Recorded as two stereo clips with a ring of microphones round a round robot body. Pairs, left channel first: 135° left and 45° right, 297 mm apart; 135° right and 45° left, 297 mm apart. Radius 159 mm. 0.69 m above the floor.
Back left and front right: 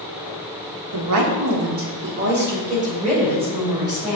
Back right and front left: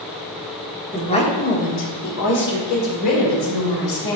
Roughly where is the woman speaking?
Ahead right.